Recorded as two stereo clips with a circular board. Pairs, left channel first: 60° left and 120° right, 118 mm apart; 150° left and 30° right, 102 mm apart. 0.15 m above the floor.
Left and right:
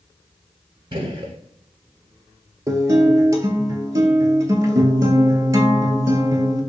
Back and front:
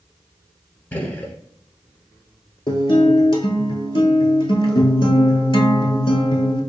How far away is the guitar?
About 0.7 m.